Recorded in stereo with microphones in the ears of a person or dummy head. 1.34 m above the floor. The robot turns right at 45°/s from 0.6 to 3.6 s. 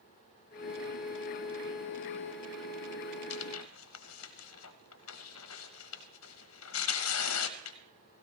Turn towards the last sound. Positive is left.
turn(degrees=80)